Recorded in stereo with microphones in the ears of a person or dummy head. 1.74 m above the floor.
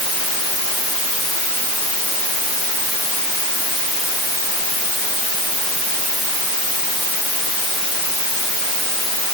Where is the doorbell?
No doorbell in this recording.